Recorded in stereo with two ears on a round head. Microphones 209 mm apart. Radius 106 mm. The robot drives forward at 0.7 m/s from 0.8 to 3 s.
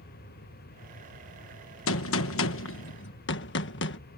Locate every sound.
1.9 s a gunshot: 60° left (ahead or behind); by 4.0 s 55° left (ahead or behind)